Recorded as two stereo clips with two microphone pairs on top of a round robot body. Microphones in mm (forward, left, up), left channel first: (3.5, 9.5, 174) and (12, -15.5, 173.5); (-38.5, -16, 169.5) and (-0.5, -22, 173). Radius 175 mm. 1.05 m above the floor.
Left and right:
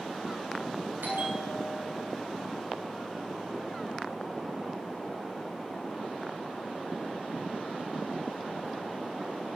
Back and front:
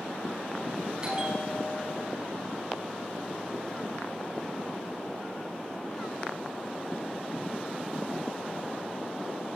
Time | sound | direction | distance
1.0 | a bell | 80° right | 7 m